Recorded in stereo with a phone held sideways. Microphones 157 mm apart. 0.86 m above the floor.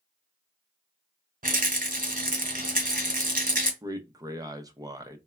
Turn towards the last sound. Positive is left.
turn(degrees=-25)  # may be behind; listen again after turning